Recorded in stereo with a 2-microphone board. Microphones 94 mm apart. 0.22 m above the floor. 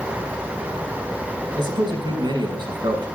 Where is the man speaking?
50° right (ahead or behind), 2.0 m.